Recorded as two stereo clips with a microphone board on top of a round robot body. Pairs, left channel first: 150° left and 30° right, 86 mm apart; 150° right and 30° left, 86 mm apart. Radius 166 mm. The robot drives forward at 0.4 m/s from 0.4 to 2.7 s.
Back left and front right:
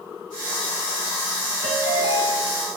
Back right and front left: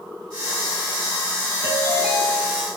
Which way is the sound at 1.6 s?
75° left.